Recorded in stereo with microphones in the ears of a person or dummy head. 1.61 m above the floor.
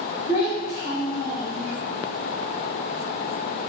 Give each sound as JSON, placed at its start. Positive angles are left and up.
{"t": 0.3, "sound": "a child speaking", "side_deg": 55, "distance_m": 1.8}